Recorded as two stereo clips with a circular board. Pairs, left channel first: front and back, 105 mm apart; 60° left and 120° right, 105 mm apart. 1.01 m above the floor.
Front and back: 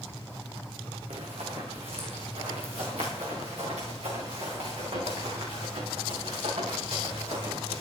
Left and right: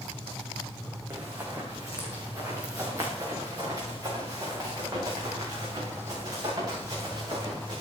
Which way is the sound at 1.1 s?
175° left.